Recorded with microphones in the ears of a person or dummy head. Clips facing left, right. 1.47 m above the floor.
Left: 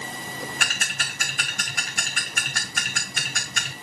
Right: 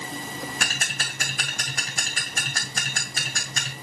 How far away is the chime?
I don't hear a chime.